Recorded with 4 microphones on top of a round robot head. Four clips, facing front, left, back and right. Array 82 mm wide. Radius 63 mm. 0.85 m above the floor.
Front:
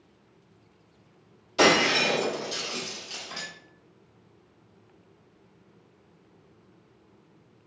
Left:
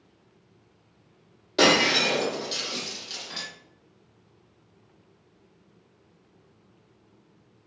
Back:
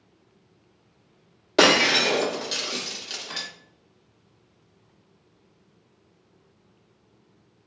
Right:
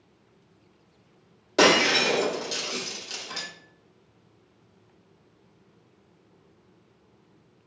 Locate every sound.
1.6 s breaking glass: 165° right, 0.9 m